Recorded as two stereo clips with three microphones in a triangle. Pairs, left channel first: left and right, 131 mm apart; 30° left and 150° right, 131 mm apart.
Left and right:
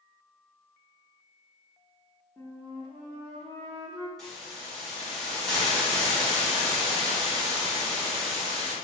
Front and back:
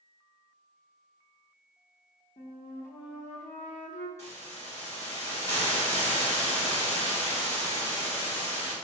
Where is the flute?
10° left, 1.1 m.